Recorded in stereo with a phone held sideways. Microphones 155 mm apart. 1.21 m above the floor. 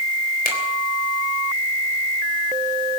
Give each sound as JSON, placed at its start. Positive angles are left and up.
{"t": 0.5, "sound": "a finger snap", "side_deg": 85, "distance_m": 3.5}